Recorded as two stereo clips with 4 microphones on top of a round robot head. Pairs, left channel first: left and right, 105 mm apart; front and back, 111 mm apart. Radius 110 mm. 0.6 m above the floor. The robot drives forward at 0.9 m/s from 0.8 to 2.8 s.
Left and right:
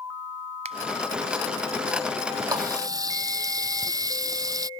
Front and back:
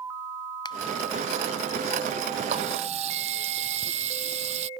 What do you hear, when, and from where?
0.7 s a finger snap: 55° right
2.5 s a running tap: 145° right